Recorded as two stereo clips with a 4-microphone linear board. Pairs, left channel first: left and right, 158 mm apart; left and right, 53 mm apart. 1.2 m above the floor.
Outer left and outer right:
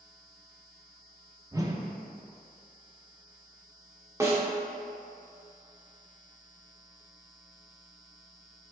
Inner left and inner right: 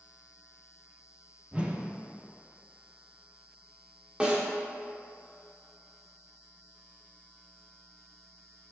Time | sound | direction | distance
1.5 | a whoosh | 20° right (ahead or behind) | 0.7 m
4.2 | a snare drum | 20° right (ahead or behind) | 1.3 m